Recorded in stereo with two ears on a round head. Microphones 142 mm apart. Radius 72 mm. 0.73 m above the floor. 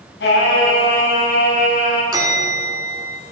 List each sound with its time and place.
0.2 s singing: 85° left, 5.5 m
2.1 s a bell: 25° right (ahead or behind), 2.5 m